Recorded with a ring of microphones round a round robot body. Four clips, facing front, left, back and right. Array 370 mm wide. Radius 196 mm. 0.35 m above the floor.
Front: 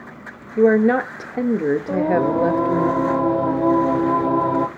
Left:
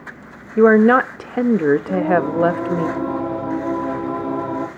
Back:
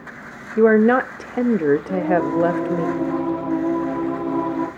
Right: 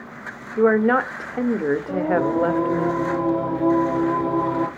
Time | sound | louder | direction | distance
0.6 | a woman speaking | left 6 dB, back 1 dB | 100° left | 0.8 m
1.9 | singing | left 3 dB, front 1 dB | straight ahead | 2 m